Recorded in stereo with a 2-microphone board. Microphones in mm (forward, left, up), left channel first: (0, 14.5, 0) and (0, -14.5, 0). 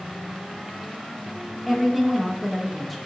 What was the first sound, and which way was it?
A woman speaking, 5° left (ahead or behind).